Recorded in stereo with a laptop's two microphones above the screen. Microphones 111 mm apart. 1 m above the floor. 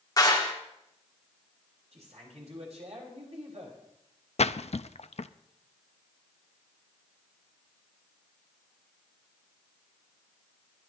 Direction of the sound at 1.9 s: 80° right.